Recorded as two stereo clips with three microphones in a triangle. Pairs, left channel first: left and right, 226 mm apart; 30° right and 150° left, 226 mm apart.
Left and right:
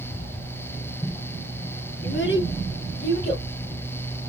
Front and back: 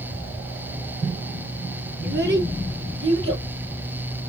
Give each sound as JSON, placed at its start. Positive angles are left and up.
{"t": 2.0, "sound": "a child speaking", "azimuth_deg": 120, "distance_m": 3.0}